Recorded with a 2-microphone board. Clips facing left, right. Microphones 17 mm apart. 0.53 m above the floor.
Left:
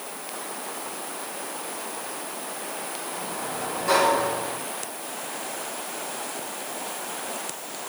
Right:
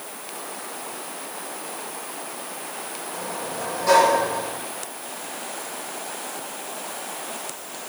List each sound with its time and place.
3.1 s a sliding door: 70° right (ahead or behind), 5 m